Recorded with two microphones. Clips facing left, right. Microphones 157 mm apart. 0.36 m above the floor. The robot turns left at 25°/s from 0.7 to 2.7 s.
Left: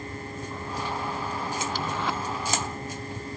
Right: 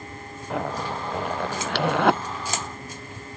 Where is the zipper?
80° right; by 2.2 s 60° right (ahead or behind).